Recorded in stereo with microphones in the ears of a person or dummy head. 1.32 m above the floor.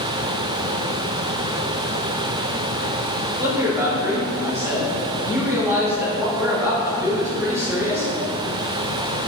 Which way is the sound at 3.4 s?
10° right (ahead or behind).